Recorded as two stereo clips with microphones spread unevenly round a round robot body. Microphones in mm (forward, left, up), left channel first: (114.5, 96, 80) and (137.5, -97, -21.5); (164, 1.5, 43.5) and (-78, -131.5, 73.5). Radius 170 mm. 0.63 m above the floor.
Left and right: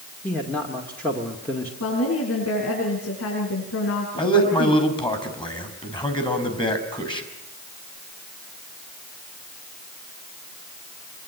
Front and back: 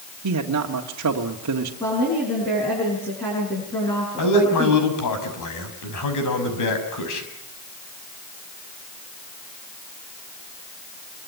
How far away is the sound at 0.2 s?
About 1.8 m.